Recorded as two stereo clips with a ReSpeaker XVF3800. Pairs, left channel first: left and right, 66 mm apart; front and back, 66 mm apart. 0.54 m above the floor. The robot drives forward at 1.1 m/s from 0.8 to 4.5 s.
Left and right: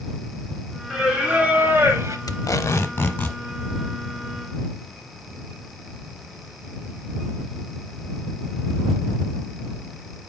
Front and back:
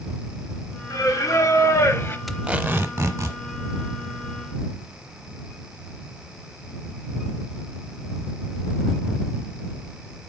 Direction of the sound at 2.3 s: 90° left.